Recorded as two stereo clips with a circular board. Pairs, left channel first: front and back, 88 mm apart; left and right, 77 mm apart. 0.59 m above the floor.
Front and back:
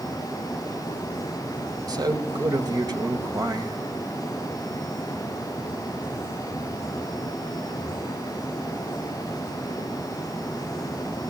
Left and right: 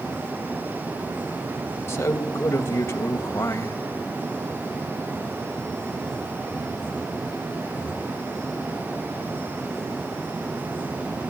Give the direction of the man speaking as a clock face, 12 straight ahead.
7 o'clock.